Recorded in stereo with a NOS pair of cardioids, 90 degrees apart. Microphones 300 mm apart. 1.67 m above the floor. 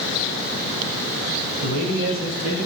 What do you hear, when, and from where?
1.6 s a man speaking: 65° right, 3 m; by 2.7 s 60° right, 4 m